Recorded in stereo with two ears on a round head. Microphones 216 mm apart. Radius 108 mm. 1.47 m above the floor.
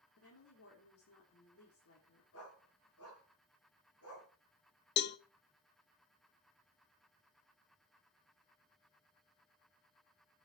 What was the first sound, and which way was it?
A woman speaking, 65° left (ahead or behind).